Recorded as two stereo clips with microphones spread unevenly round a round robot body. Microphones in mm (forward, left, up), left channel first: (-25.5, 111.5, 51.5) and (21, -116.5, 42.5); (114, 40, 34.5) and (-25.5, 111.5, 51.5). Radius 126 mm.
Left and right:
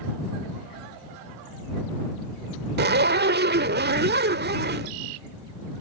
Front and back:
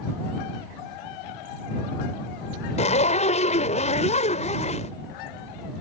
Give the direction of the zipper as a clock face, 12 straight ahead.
2 o'clock.